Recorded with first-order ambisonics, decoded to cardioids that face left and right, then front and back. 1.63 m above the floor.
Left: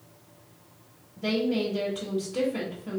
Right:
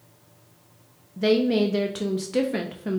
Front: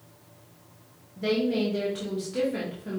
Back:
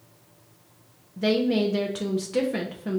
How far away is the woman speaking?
About 0.7 m.